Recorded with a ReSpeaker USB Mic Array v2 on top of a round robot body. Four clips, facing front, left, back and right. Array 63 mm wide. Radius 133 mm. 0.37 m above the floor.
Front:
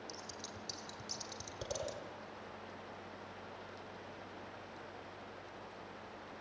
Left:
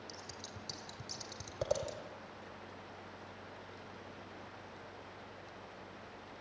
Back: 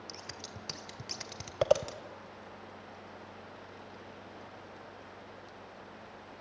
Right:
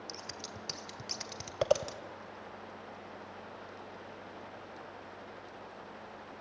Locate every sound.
0.1 s scissors: 145° right, 1.3 m